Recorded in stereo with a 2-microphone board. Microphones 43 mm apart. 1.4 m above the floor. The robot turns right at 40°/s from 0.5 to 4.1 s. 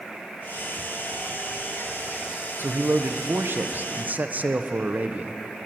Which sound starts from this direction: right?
A man speaking, at 2.6 s.